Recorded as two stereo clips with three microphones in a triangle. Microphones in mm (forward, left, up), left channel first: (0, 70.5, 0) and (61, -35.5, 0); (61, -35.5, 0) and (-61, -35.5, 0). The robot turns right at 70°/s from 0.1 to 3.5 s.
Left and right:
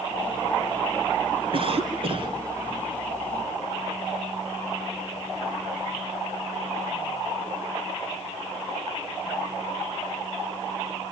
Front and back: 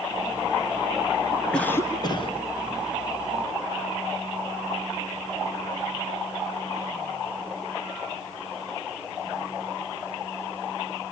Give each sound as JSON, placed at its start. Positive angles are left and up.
{"t": 1.5, "sound": "a cough", "azimuth_deg": -80, "distance_m": 2.5}